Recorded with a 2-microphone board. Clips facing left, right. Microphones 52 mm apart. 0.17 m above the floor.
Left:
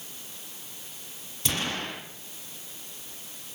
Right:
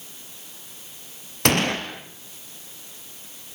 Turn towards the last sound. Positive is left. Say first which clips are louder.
# right 9 dB
turn(degrees=-60)  # may be behind; listen again after turning